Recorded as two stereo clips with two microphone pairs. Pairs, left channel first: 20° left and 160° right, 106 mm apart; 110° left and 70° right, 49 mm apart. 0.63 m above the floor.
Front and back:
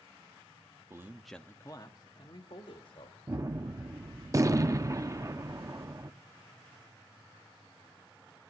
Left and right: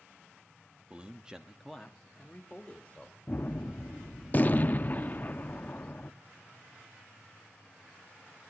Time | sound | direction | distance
0.9 | a man speaking | 120° right | 0.9 m
3.3 | a gunshot | 150° left | 0.6 m